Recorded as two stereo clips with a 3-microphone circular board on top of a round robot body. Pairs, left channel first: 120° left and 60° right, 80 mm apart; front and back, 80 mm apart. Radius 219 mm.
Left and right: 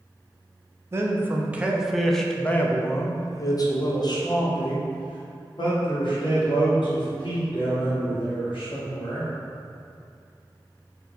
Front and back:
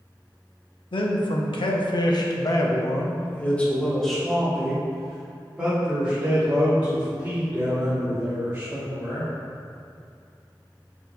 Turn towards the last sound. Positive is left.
turn(degrees=115)